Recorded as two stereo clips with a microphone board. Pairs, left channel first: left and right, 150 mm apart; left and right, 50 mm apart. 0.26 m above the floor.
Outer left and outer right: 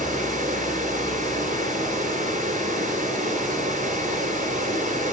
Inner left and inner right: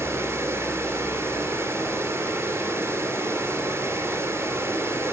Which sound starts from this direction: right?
Running water, at 0.0 s.